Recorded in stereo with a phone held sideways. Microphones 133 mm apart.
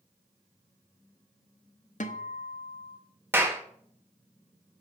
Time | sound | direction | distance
2.0 | a guitar | 70° left (ahead or behind) | 0.9 m
3.3 | a clap | 15° right (ahead or behind) | 1.3 m